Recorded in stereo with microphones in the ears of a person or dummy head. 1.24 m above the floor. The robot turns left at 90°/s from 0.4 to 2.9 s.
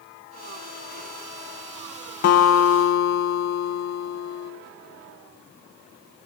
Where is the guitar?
125° left, 1.0 m; by 4.5 s 65° left, 1.0 m.